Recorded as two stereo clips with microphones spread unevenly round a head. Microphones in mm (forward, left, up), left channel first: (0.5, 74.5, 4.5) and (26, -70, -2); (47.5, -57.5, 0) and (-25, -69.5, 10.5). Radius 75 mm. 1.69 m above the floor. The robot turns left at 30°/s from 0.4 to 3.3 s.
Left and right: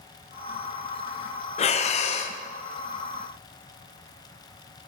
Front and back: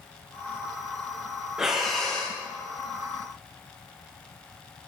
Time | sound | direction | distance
1.6 | breathing | 115° left | 0.5 m